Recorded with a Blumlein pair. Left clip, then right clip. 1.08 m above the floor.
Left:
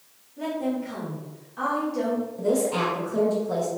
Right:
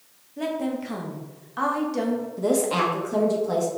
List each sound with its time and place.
0.4 s a woman speaking: 30° right, 1.3 m
2.4 s a woman speaking: 45° right, 1.5 m